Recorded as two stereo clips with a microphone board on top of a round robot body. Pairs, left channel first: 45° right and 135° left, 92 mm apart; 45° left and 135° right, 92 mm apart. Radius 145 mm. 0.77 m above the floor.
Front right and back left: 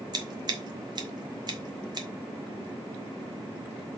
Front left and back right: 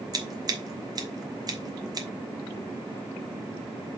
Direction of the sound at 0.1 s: Straight behind.